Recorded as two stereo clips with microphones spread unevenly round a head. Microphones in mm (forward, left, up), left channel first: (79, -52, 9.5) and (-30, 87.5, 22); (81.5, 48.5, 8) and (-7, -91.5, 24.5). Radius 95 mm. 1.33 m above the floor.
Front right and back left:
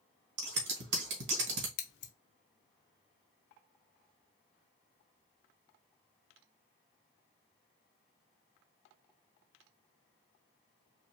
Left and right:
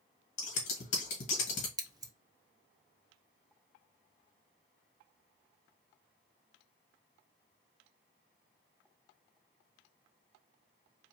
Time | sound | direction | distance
0.4 | scissors | 110° left | 1.6 m
1.8 | scissors | 55° right | 0.8 m